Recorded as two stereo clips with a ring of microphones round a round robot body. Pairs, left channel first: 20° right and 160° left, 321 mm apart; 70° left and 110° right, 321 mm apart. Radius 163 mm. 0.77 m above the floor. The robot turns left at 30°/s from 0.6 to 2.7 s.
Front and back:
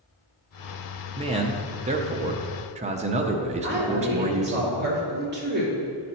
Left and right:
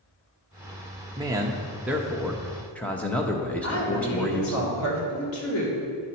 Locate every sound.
1.2 s a man speaking: 170° right, 0.6 m; by 4.6 s 145° left, 0.6 m
3.6 s a woman speaking: 100° left, 2.5 m